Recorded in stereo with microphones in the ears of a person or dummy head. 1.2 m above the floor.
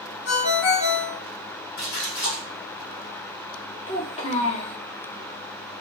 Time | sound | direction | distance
0.2 | a ringtone | 70° left (ahead or behind) | 2 m
1.8 | a splash | 60° left (ahead or behind) | 1.4 m
3.9 | a child speaking | 35° left (ahead or behind) | 1.1 m